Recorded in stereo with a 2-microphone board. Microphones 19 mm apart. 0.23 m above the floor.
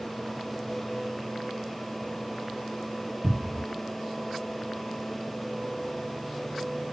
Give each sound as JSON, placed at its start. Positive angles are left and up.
{"t": 3.2, "sound": "a cupboard door", "side_deg": -30, "distance_m": 1.3}